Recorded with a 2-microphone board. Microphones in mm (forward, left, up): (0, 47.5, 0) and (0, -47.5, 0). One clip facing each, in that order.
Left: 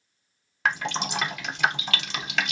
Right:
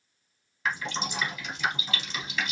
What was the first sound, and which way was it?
Dripping, 75° left (ahead or behind).